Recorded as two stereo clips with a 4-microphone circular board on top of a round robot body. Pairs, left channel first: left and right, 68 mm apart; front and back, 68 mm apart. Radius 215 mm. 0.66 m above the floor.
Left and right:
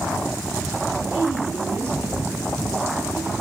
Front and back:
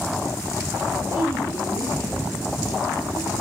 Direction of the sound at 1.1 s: 40° right.